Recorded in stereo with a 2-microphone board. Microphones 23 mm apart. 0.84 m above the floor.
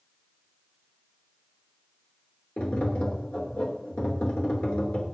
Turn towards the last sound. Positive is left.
turn(degrees=75)  # may be behind; listen again after turning